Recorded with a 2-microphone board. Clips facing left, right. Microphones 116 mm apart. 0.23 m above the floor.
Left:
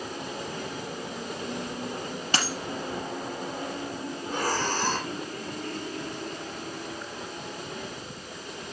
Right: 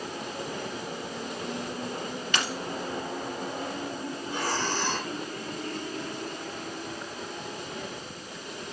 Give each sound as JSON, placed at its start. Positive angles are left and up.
{"t": 2.3, "sound": "a dropped coin", "side_deg": 35, "distance_m": 3.0}
{"t": 4.2, "sound": "breathing", "side_deg": 40, "distance_m": 5.5}